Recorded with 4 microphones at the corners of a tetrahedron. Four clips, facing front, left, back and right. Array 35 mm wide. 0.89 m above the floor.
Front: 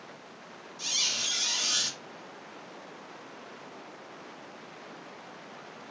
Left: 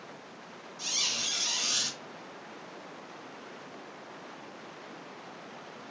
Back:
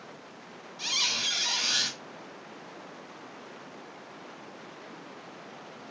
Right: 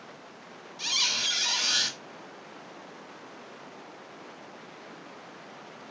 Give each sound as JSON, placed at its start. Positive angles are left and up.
{"t": 0.8, "sound": "a squeak", "azimuth_deg": -120, "distance_m": 1.1}